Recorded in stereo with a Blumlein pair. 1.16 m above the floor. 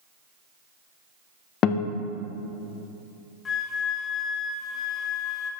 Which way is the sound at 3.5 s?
20° left.